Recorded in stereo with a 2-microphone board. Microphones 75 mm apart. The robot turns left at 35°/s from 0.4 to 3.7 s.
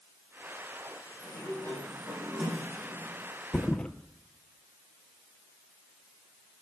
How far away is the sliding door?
About 3.5 m.